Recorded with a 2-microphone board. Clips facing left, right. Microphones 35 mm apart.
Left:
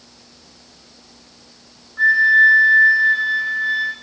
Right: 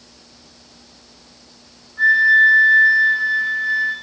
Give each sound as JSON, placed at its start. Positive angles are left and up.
{"t": 2.0, "sound": "a flute", "side_deg": 20, "distance_m": 2.5}